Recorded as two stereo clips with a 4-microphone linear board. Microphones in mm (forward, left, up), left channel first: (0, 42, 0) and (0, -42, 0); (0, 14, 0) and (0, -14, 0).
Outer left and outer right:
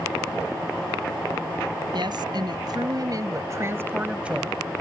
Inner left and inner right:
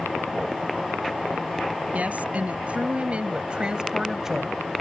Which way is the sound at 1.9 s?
65° right (ahead or behind).